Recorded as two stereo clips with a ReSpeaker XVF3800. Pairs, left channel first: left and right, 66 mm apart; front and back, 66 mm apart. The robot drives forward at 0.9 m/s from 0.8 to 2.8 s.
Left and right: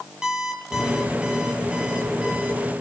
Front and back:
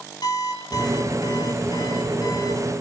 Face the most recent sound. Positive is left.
turn(degrees=-15)